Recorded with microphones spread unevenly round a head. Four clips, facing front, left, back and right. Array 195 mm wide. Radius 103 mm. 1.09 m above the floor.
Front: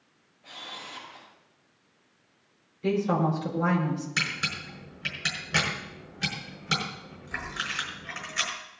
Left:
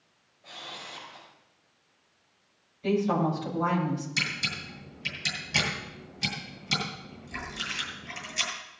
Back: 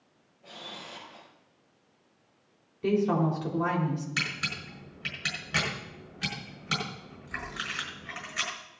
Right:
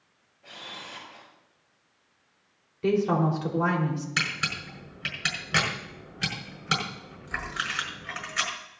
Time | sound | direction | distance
0.4 | a camera shutter | 145° right | 5 m
2.8 | a woman speaking | 115° right | 4.5 m
4.2 | a camera shutter | 55° right | 6 m